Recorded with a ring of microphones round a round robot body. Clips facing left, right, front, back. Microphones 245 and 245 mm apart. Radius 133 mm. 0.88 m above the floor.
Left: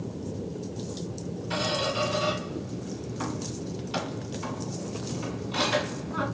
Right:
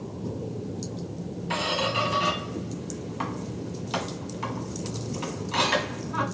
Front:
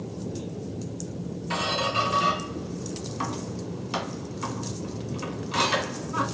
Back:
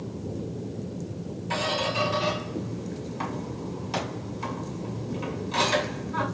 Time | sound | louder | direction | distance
1.5 | a squeak | even, back 1 dB | 75° right | 1.4 m